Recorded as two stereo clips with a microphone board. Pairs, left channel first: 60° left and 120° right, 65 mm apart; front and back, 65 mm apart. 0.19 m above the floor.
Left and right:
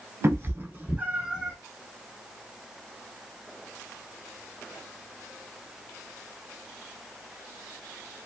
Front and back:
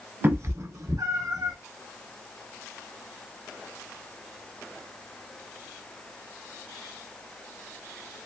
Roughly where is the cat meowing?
Behind right.